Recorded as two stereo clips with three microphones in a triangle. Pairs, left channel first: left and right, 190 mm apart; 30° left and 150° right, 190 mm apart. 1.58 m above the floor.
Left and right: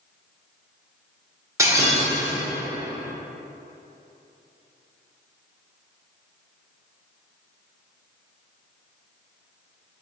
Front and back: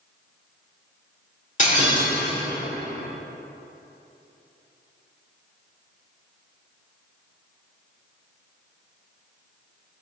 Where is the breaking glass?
20° right, 2.5 m.